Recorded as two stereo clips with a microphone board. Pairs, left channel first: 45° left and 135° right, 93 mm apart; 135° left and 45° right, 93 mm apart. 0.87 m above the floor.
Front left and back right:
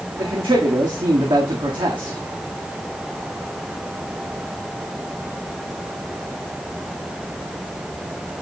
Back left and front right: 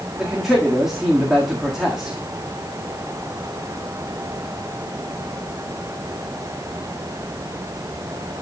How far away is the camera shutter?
I don't hear a camera shutter.